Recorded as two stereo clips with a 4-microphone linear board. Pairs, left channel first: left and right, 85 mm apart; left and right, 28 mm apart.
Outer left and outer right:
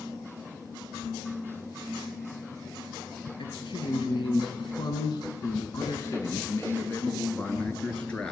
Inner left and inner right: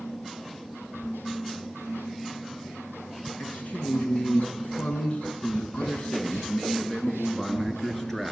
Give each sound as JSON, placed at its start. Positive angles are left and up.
{"t": 3.4, "sound": "a man speaking", "side_deg": 80, "distance_m": 4.0}